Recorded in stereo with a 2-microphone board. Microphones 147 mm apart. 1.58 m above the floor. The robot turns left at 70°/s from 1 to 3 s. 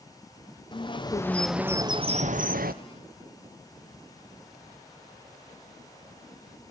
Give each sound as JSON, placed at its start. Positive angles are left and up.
{"t": 0.7, "sound": "a bird", "azimuth_deg": 35, "distance_m": 0.9}